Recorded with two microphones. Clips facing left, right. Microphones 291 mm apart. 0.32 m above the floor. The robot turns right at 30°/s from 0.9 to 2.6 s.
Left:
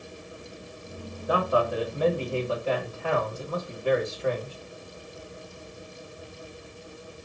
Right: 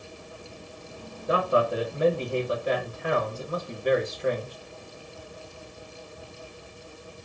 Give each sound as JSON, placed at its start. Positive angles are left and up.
{"t": 1.3, "sound": "a man speaking", "side_deg": -25, "distance_m": 1.2}